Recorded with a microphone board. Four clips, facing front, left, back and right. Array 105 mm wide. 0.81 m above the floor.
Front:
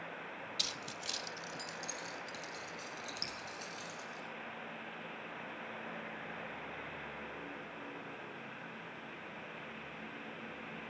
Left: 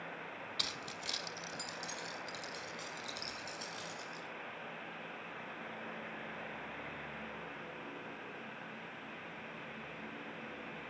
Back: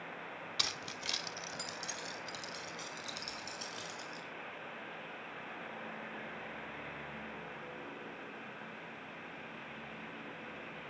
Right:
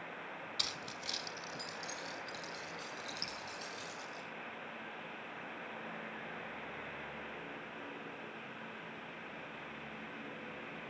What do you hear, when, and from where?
0.6 s keys jangling: straight behind, 1.1 m; by 4.2 s 165° left, 7 m
3.2 s dripping: 30° right, 6 m